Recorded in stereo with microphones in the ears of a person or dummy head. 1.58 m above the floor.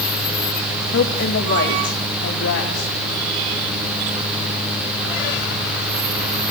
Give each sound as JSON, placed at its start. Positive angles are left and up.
{"t": 0.9, "sound": "a woman speaking", "side_deg": 55, "distance_m": 2.5}